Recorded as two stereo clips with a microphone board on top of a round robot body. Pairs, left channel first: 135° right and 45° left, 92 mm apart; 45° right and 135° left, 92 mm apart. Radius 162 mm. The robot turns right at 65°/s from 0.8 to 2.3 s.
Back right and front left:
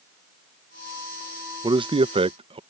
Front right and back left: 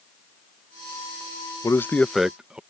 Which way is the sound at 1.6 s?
10° left.